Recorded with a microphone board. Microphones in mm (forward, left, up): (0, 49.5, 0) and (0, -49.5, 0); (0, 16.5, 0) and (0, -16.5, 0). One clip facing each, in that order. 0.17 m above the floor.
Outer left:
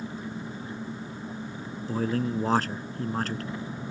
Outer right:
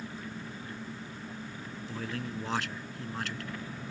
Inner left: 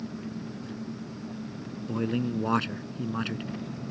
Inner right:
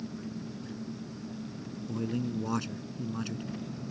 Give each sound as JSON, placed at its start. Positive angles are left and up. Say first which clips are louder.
{"t": 0.0, "sound": "an engine running", "louder": "outer left 5 dB, inner left 3 dB", "side_deg": 20}
{"t": 1.9, "sound": "a man speaking", "louder": "outer left 11 dB, inner left 5 dB", "side_deg": 40}